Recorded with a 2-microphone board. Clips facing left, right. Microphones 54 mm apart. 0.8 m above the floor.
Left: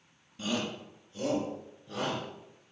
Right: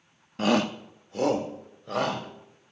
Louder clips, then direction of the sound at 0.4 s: Right 10 dB; 65° right (ahead or behind).